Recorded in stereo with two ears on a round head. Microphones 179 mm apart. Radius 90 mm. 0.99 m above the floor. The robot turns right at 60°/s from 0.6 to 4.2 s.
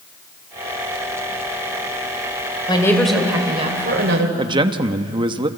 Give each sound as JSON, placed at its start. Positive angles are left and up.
{"t": 2.7, "sound": "a woman speaking", "azimuth_deg": 155, "distance_m": 4.0}
{"t": 4.4, "sound": "a man speaking", "side_deg": -25, "distance_m": 1.1}